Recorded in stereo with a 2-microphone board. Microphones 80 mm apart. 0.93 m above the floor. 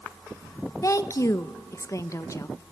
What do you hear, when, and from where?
0.8 s a woman speaking: 40° left (ahead or behind), 0.6 m